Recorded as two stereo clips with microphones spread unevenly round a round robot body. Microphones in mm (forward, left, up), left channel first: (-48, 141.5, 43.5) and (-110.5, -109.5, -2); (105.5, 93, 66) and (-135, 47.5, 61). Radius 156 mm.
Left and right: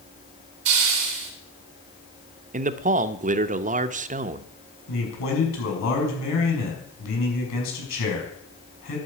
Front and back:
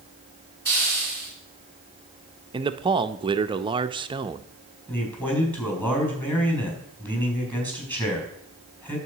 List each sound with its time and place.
0.7 s a hiss: 70° right, 2.5 m
2.5 s a man speaking: 115° right, 0.6 m
4.9 s a man speaking: 95° left, 5.5 m